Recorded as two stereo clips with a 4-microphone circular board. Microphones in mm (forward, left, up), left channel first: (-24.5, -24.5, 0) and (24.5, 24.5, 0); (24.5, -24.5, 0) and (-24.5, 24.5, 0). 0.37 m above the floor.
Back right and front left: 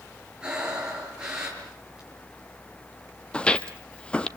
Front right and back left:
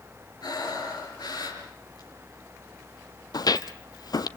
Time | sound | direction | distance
0.4 | breathing | 35° right | 6 m
3.3 | footsteps | 60° right | 0.8 m